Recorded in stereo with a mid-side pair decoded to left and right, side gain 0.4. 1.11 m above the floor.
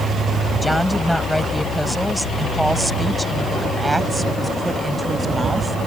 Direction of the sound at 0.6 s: 10° left.